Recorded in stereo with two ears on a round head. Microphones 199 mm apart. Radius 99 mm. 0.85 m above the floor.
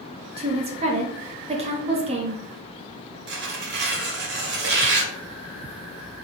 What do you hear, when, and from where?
0.4 s a woman speaking: 30° right (ahead or behind), 0.6 m
3.3 s tearing paper: 50° right (ahead or behind), 0.9 m